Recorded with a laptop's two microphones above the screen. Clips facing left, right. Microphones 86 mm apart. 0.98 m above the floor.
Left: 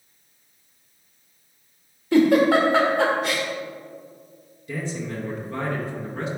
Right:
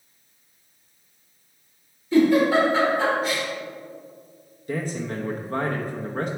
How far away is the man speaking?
About 0.8 m.